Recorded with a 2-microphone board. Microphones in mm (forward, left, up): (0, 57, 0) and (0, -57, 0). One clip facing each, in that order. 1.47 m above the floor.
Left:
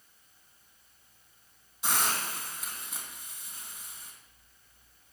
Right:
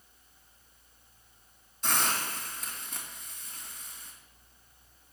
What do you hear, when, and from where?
1.8 s a hiss: 5° left (ahead or behind), 2.5 m